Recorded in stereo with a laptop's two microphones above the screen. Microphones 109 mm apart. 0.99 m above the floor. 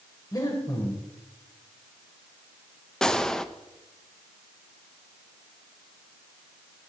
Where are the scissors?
No scissors in this recording.